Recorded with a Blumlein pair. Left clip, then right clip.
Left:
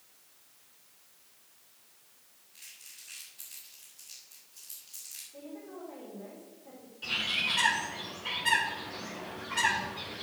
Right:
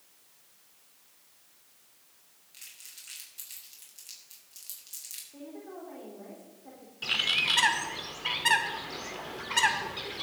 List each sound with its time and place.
2.5 s crumpling: 50° right, 5.5 m
5.3 s a woman speaking: 70° right, 3.5 m
7.0 s a bird: 25° right, 2 m